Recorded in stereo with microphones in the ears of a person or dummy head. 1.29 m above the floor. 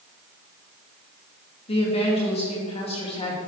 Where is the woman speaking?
30° left (ahead or behind), 2.5 m.